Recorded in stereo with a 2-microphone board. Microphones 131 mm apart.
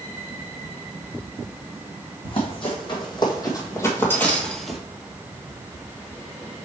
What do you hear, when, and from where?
2.2 s running footsteps: 45° left (ahead or behind), 3 m; by 4.8 s 5° right (ahead or behind), 1.4 m